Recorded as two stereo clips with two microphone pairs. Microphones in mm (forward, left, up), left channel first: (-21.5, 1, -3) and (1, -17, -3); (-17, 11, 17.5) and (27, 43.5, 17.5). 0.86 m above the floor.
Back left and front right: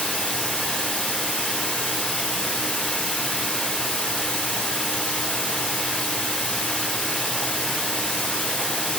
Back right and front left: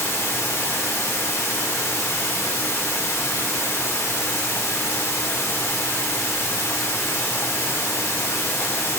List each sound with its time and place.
0.0 s running water: 175° left, 2.5 m